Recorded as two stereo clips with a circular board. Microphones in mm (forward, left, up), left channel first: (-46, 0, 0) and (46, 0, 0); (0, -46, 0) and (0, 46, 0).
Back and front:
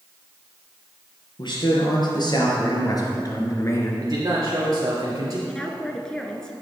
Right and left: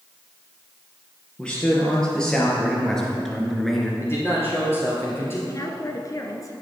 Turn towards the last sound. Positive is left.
turn(degrees=-100)